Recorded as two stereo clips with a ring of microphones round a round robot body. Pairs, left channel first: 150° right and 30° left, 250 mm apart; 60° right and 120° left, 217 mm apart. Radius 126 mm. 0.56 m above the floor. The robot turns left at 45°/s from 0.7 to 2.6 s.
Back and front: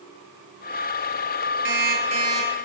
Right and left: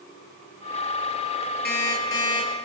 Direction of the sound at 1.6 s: 15° right.